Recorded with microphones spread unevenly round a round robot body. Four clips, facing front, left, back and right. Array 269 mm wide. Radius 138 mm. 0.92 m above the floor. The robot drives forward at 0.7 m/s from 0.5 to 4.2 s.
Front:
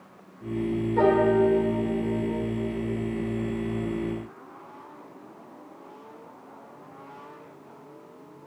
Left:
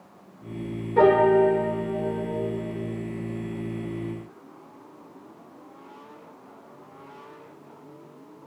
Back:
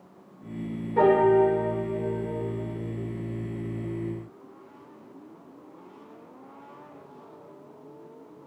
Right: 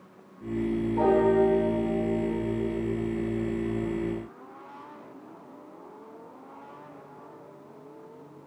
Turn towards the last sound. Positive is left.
turn(degrees=145)